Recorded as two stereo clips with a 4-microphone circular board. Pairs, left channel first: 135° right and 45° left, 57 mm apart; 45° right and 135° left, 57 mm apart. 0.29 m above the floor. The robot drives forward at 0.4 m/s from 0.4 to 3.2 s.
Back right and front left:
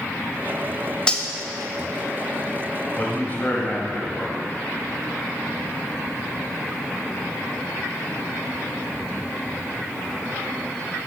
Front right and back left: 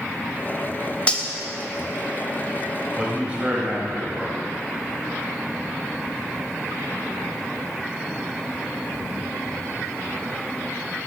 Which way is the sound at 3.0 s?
170° right.